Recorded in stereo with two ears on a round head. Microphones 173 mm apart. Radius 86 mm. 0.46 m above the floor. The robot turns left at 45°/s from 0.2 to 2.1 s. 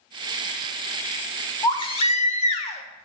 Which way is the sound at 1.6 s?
20° left (ahead or behind).